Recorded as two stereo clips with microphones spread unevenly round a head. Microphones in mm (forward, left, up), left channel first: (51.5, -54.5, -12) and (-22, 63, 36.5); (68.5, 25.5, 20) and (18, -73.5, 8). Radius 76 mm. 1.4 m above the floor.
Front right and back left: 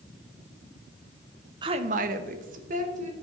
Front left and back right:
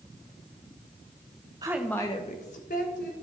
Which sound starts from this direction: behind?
A woman speaking, at 1.6 s.